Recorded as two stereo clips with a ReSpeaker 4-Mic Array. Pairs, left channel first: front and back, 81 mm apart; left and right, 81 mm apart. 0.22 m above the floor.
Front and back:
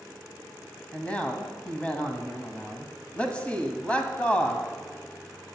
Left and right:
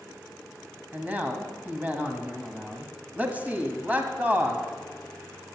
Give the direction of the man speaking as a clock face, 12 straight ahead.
2 o'clock.